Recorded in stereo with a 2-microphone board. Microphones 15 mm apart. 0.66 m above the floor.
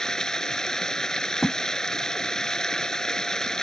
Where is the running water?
40° left (ahead or behind).